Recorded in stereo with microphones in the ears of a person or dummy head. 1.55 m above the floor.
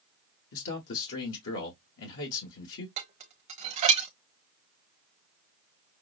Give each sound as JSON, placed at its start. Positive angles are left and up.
{"t": 0.5, "sound": "a man speaking", "side_deg": 75, "distance_m": 1.3}
{"t": 3.0, "sound": "dishes clattering", "side_deg": -40, "distance_m": 1.0}